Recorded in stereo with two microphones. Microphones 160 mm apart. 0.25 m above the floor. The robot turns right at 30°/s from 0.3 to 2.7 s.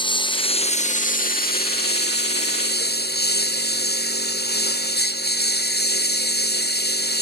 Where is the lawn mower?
30° left; by 7.2 s 100° left.